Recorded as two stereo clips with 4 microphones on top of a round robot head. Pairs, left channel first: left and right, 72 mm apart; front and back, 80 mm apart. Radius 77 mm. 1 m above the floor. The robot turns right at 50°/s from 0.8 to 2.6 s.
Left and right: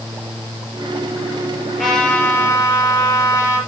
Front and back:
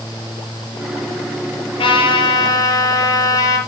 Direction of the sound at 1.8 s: Straight ahead.